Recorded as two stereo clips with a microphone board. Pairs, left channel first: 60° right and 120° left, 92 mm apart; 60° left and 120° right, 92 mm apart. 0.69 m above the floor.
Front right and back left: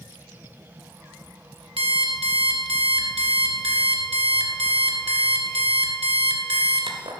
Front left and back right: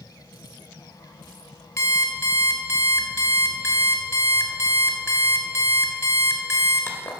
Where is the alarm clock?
120° left, 1.9 m.